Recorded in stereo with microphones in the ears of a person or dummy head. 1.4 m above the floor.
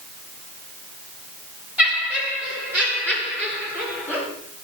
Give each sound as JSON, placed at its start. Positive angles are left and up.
{"t": 1.8, "sound": "laughter", "side_deg": -10, "distance_m": 5.0}